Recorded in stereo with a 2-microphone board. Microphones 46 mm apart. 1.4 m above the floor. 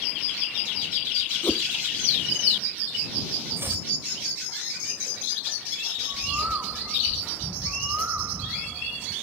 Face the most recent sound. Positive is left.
turn(degrees=-40)  # may be behind; listen again after turning